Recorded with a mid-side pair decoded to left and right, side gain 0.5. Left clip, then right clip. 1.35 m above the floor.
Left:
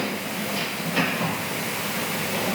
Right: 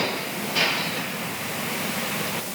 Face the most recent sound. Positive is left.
No sound to turn to.